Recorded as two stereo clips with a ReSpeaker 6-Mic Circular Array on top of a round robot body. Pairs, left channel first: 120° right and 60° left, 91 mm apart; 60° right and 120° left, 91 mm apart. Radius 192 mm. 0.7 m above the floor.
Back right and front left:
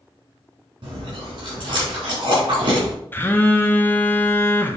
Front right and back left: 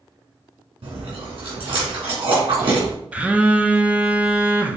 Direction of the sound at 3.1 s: 175° right.